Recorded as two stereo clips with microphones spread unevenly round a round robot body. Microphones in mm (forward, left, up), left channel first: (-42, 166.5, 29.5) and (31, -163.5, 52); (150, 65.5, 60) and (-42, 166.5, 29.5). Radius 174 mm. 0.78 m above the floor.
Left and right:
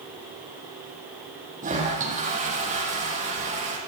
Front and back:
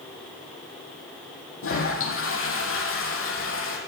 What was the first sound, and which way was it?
A toilet flushing, 10° right.